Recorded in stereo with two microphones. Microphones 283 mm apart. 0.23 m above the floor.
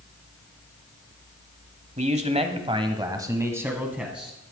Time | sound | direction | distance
2.0 | a man speaking | 25° right (ahead or behind) | 1.1 m